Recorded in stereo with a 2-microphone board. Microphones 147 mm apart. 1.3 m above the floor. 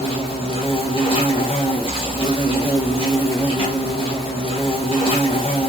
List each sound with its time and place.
0.0 s an insect: 35° left (ahead or behind), 1.9 m